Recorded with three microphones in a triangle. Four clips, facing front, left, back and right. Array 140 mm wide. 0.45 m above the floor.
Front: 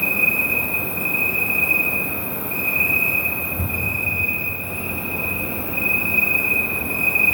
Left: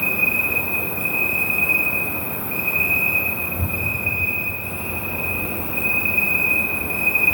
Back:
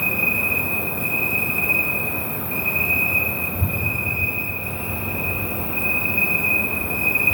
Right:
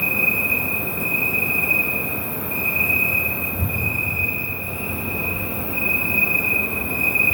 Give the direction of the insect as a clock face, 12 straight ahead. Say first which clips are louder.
Even, front 1 dB; 11 o'clock.